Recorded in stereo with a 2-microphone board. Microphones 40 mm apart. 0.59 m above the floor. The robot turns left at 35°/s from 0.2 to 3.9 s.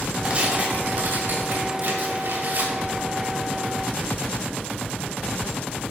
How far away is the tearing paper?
About 2.5 m.